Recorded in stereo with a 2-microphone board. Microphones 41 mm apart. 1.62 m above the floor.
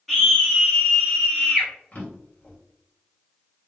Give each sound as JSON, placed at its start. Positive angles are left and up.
{"t": 0.1, "sound": "a scream", "side_deg": 5, "distance_m": 0.6}
{"t": 1.9, "sound": "a drawer", "side_deg": 35, "distance_m": 1.7}